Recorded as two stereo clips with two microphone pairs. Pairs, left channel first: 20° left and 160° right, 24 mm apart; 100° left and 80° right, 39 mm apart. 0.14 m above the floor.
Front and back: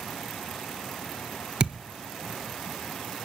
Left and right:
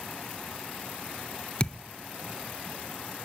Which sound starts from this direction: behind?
A thud, at 1.6 s.